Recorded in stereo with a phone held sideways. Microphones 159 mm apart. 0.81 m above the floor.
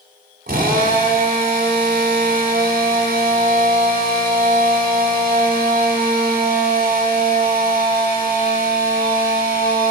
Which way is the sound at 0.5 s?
75° right (ahead or behind).